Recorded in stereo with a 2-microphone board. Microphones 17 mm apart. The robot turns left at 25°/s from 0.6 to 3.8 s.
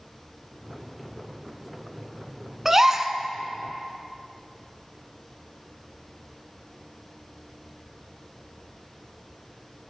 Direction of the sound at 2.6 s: 15° right (ahead or behind).